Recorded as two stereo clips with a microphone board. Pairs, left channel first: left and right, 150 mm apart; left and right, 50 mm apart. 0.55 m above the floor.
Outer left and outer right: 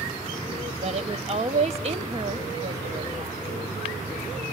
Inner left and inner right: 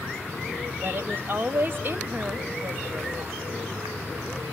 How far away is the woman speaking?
About 1.0 m.